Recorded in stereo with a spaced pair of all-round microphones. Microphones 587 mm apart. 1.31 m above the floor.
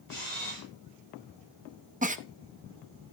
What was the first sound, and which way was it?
A camera shutter, 65° right (ahead or behind).